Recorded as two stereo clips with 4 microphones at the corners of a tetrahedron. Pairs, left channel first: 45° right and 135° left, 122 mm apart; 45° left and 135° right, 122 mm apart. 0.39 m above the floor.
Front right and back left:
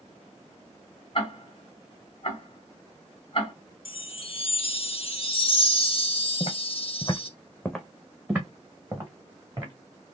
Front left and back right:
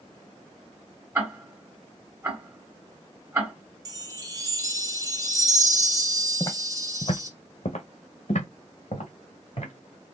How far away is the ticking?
About 2 m.